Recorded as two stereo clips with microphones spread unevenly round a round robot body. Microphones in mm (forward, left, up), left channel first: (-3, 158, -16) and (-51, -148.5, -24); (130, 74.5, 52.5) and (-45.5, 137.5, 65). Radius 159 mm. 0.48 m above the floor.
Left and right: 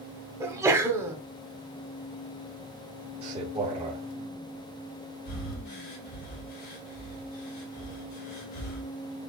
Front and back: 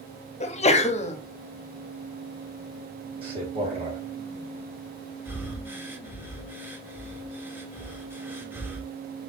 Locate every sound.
0.4 s a sneeze: 25° right, 0.8 m
3.2 s a man speaking: 155° right, 1.2 m
5.2 s breathing: 80° left, 1.4 m